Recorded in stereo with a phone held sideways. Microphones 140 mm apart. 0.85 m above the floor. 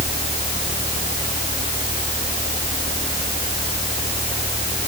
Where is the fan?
60° left (ahead or behind).